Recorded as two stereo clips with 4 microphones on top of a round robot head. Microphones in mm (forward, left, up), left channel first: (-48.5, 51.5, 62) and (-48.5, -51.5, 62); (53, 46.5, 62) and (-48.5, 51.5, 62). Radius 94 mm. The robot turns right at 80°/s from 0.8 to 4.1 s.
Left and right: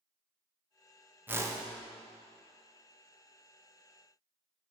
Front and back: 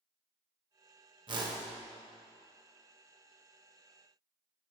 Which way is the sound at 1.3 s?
160° right.